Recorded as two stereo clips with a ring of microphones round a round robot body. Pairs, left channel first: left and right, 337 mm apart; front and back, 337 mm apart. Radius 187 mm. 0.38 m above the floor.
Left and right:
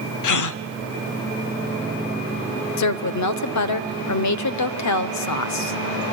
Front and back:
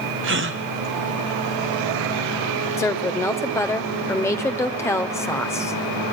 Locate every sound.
0.2 s a gasp: 125° left, 0.7 m
2.8 s a woman speaking: 80° left, 1.2 m